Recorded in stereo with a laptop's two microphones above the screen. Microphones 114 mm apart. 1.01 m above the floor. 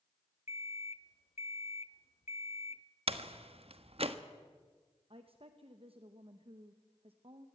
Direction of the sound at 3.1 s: 60° right (ahead or behind).